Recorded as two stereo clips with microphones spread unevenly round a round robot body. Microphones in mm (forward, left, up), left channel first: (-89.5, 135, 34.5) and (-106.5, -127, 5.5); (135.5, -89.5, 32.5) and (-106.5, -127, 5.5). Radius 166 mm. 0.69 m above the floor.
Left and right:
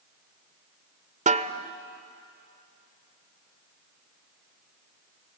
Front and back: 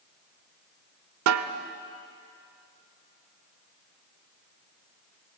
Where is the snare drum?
160° right, 1.0 m.